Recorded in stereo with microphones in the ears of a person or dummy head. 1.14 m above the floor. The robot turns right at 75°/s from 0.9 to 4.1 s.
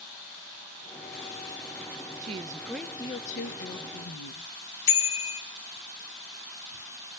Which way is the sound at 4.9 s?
70° left (ahead or behind).